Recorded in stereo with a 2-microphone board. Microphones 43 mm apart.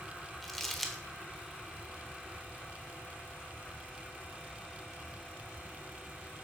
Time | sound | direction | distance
0.4 | crumpling | 5° left (ahead or behind) | 1.2 m